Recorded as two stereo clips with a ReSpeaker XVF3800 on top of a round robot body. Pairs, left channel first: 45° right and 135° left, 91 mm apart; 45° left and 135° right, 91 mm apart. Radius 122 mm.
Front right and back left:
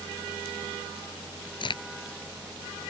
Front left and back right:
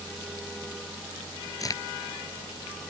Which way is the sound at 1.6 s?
10° right.